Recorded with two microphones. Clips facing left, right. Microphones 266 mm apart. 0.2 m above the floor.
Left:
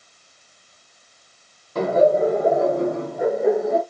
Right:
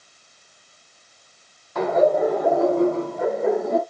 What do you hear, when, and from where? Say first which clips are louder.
1.8 s laughter: left 2 dB; 30° left (ahead or behind), 1.4 m; by 3.8 s 5° left (ahead or behind), 1.8 m